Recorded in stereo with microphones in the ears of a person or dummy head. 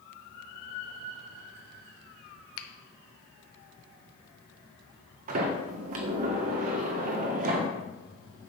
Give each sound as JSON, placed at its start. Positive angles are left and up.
{"t": 2.6, "sound": "a finger snap", "side_deg": 75, "distance_m": 0.8}
{"t": 5.3, "sound": "a sliding door", "side_deg": -50, "distance_m": 1.5}